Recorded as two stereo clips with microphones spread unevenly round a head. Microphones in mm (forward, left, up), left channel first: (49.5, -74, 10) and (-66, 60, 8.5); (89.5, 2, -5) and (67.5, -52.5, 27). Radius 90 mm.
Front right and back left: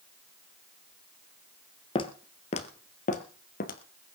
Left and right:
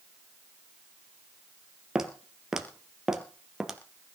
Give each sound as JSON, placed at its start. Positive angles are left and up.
{"t": 1.9, "sound": "footsteps", "azimuth_deg": -90, "distance_m": 1.8}